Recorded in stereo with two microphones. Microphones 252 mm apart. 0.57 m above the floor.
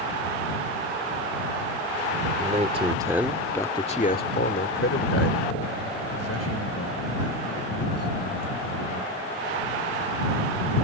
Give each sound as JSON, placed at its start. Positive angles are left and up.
{"t": 2.4, "sound": "a man speaking", "side_deg": -30}